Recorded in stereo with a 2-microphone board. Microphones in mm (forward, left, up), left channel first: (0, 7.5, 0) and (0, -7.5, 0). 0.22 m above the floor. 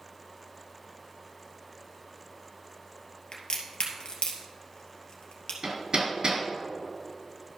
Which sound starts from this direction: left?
A crack, at 3.3 s.